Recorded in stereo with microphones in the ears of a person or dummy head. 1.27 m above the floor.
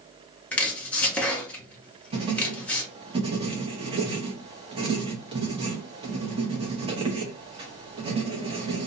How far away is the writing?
About 0.7 m.